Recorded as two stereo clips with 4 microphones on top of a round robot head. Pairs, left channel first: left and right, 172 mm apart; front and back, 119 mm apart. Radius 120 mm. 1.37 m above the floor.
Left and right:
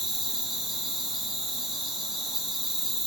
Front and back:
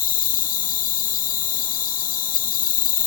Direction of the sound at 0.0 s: Straight ahead.